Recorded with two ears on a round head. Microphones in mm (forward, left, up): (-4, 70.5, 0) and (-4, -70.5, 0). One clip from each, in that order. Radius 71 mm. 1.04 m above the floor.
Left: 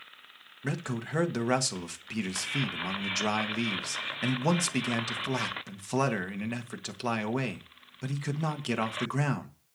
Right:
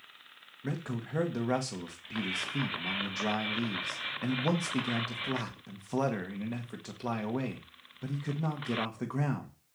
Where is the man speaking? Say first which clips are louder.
Left 4 dB; 60° left (ahead or behind), 1.6 m.